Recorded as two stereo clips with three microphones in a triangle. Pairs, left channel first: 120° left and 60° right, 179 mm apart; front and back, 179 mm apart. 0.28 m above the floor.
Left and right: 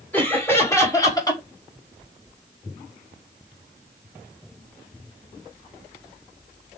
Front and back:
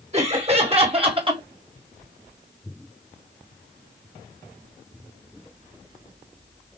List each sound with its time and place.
0.1 s laughter: 165° right, 1.9 m; by 1.4 s 160° left, 1.7 m